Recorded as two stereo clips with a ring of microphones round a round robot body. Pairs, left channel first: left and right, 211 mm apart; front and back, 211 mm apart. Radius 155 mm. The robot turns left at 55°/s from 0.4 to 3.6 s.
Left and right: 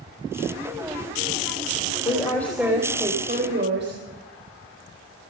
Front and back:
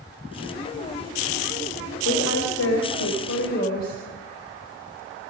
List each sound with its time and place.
2.0 s a woman speaking: 25° left, 4.5 m; by 4.0 s 60° right, 4.5 m